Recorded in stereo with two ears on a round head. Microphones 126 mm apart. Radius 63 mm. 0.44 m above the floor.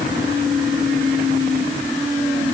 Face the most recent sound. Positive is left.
No sound to turn to.